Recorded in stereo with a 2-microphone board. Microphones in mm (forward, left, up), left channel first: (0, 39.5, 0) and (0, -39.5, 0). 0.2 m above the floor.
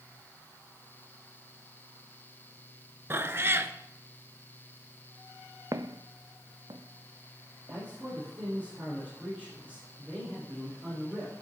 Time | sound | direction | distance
3.1 | a cat meowing | 30° right (ahead or behind) | 0.5 m
5.7 | footsteps | 45° right (ahead or behind) | 0.6 m
7.7 | a man speaking | 15° right (ahead or behind) | 5.5 m